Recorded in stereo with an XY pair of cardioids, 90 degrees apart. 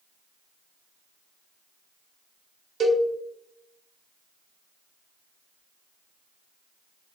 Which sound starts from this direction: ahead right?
A cowbell, at 2.8 s.